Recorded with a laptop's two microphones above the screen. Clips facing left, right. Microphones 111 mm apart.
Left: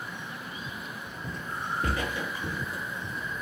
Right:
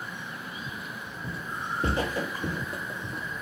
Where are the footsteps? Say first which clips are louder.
Even; 5° right (ahead or behind), 1.2 m; by 3.2 s 60° right (ahead or behind), 2 m.